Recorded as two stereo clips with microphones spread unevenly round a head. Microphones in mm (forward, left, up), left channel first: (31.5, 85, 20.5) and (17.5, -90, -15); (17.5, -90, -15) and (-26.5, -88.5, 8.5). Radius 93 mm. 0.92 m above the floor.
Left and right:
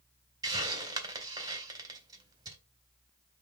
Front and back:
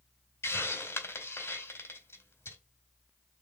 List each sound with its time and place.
0.4 s a hiss: 25° right, 2.5 m